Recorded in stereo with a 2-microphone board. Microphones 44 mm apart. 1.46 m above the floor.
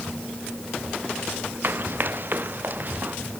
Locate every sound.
1.6 s running footsteps: 55° right (ahead or behind); by 3.2 s 45° right (ahead or behind)